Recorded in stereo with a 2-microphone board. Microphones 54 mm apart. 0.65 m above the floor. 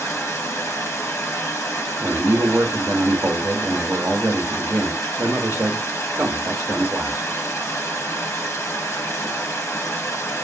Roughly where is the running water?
Left.